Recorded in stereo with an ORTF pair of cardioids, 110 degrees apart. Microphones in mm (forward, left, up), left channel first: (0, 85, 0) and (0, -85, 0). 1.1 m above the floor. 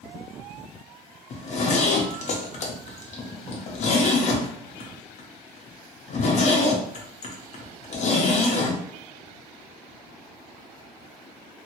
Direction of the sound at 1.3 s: 45° left.